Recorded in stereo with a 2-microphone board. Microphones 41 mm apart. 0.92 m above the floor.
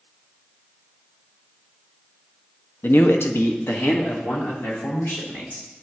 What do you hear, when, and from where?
2.8 s a man speaking: 45° left (ahead or behind), 0.6 m; by 5.7 s 65° left (ahead or behind), 3 m